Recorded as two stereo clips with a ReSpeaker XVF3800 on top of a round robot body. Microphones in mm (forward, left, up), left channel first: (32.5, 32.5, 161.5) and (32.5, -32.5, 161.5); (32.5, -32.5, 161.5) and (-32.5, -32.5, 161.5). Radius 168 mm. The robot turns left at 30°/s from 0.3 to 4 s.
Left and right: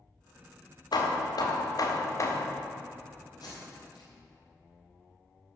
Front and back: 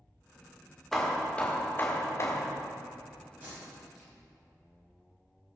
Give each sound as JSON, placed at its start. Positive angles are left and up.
{"t": 0.9, "sound": "hammering", "azimuth_deg": 85, "distance_m": 1.7}
{"t": 3.4, "sound": "tape being pulled", "azimuth_deg": 115, "distance_m": 4.5}